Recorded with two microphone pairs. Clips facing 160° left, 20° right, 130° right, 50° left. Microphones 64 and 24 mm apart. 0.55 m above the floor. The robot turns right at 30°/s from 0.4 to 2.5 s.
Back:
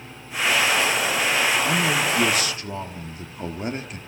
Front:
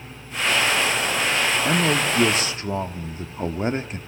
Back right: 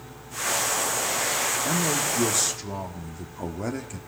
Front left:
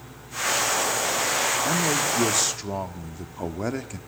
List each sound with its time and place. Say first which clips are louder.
1.6 s a man speaking: front 1 dB, front left 2 dB; 30° right, 1.2 m; by 4.0 s 5° right, 1.2 m